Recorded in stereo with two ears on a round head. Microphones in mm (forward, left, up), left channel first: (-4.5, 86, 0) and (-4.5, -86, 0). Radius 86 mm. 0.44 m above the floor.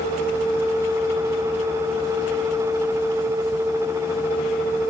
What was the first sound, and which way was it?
Only background noise.